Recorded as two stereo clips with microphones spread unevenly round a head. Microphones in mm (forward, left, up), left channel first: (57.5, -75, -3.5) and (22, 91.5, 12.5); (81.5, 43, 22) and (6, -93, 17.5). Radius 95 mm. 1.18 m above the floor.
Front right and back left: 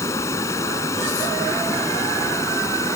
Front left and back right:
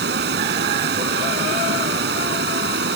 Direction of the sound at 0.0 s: 155° right.